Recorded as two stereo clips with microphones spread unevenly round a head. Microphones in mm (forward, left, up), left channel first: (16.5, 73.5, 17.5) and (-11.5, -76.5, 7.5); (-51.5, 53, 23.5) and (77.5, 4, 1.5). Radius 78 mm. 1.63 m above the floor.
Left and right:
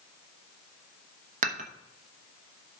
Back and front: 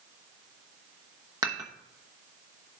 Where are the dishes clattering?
95° right, 1.0 m.